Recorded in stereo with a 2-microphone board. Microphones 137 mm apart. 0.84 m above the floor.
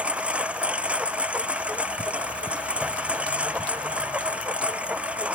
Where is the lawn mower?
10° right (ahead or behind).